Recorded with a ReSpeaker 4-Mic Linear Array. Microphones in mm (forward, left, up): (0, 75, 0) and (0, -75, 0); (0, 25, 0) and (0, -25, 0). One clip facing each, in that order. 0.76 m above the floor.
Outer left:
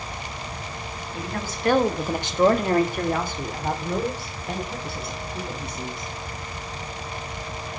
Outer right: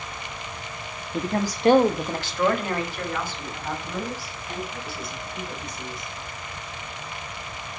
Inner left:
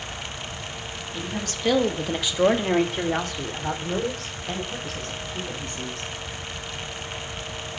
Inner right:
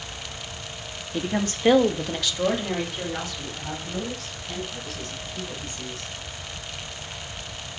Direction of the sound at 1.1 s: 55° right (ahead or behind).